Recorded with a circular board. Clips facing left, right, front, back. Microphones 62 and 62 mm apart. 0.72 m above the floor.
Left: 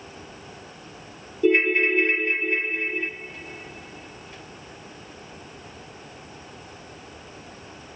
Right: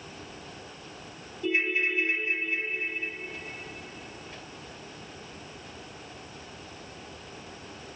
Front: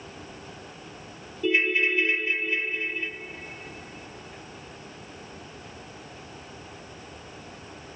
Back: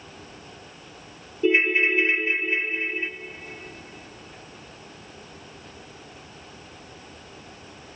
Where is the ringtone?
125° left, 0.6 m.